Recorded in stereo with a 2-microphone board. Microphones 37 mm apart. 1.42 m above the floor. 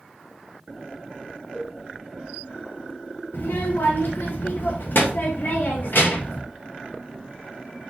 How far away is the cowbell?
About 0.9 m.